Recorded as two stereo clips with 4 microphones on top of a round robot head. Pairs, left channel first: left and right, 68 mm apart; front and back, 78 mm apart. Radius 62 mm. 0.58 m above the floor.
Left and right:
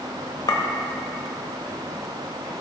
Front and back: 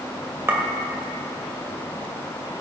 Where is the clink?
115° left, 1.7 m.